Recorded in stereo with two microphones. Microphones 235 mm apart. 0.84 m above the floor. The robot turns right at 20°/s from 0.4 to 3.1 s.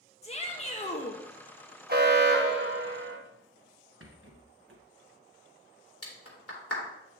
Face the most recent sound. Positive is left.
turn(degrees=75)  # may be behind; listen again after turning